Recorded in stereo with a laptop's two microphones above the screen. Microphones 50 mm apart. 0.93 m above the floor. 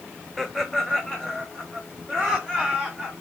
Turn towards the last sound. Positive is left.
turn(degrees=10)  # may be behind; listen again after turning